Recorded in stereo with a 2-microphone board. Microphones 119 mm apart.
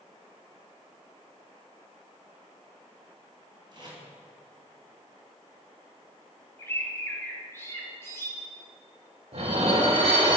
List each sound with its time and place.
3.7 s tape being pulled: 40° right (ahead or behind), 3 m
6.6 s a bird: 20° left (ahead or behind), 1.5 m
9.3 s dishes clattering: 65° right (ahead or behind), 1.8 m